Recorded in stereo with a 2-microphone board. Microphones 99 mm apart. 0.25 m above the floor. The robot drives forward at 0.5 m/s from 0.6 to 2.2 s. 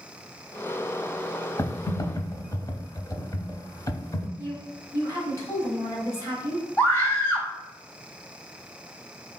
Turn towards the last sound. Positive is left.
turn(degrees=20)  # may be behind; listen again after turning